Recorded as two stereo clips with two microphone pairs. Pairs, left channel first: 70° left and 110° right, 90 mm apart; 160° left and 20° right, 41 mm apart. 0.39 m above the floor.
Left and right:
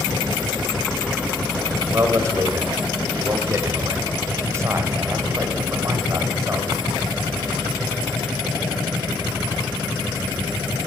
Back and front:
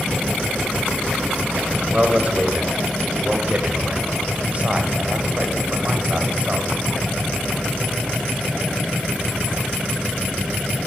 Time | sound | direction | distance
1.9 | a man speaking | 60° right | 1.5 m